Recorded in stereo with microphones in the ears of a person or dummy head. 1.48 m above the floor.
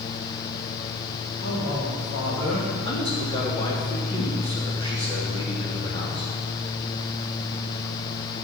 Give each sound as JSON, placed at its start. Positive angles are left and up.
{"t": 1.4, "sound": "a man speaking", "side_deg": 75, "distance_m": 4.5}
{"t": 2.9, "sound": "a man speaking", "side_deg": 30, "distance_m": 2.5}